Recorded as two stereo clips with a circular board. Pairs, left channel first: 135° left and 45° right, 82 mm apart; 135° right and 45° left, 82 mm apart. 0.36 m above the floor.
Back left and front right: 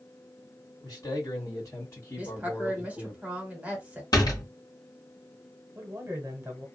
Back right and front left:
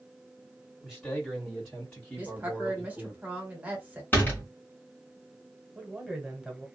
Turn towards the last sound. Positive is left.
turn(degrees=-30)